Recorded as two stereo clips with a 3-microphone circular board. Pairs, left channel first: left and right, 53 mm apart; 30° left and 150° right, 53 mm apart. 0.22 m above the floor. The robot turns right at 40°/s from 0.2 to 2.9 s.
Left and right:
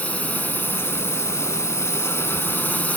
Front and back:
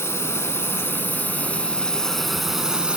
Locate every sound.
0.0 s a drone: 35° left; by 3.0 s 145° left